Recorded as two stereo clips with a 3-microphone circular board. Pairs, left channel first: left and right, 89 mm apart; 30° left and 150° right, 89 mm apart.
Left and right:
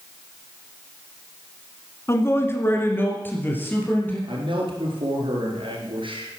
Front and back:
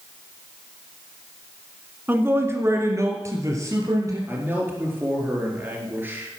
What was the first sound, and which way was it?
A man speaking, 145° left.